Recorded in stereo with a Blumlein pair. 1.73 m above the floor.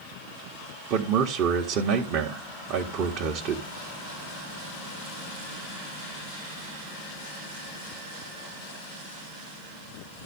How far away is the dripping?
I don't hear dripping.